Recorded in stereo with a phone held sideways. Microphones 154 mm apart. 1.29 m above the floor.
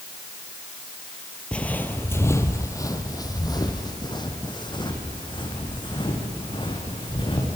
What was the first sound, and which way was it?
Footsteps, 5° left (ahead or behind).